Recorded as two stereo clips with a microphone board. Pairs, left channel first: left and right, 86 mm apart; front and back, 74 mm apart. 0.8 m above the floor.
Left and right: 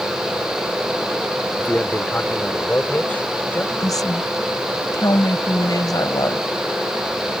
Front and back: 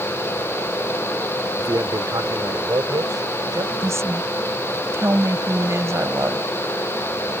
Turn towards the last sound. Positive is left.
turn(degrees=130)